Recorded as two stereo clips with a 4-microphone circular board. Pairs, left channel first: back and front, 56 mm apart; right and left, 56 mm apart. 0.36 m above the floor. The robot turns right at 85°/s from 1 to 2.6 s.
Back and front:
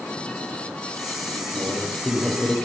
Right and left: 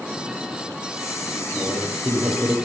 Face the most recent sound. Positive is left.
turn(degrees=110)